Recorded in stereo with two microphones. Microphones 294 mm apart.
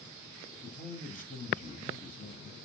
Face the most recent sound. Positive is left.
turn(degrees=25)  # may be behind; listen again after turning